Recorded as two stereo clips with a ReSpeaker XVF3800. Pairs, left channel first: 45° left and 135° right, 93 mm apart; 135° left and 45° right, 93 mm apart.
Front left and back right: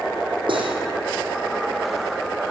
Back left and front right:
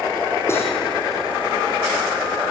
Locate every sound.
0.5 s cutlery clinking: 160° right, 4.5 m